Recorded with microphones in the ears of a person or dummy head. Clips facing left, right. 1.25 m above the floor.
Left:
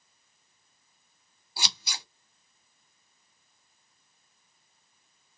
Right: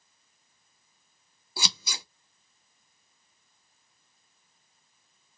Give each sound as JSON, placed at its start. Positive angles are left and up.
{"t": 1.6, "sound": "scissors", "side_deg": -70, "distance_m": 1.0}